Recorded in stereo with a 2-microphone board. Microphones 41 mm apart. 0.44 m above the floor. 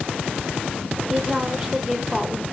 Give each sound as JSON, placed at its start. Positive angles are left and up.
{"t": 1.1, "sound": "a woman speaking", "side_deg": -10, "distance_m": 1.6}